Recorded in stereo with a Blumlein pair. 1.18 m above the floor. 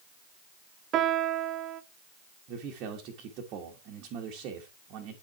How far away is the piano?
About 0.5 m.